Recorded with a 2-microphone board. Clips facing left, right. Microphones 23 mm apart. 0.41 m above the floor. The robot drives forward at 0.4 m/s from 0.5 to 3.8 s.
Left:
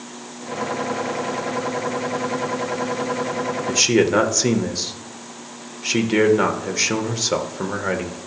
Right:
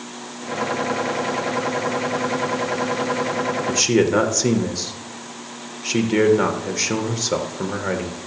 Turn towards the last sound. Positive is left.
turn(degrees=15)  # may be behind; listen again after turning